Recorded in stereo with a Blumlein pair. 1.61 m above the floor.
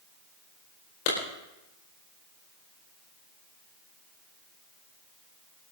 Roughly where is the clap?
Ahead left.